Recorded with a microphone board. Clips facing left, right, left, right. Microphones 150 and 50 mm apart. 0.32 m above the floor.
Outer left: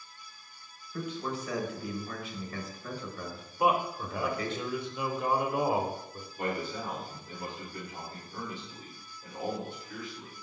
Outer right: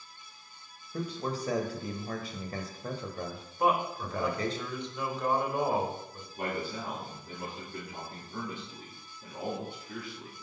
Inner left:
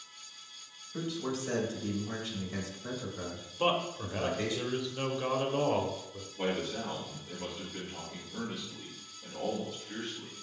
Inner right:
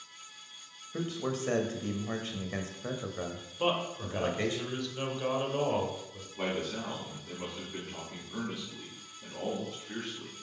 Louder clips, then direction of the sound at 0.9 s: Outer right 1 dB, inner right 1 dB; 35° right (ahead or behind).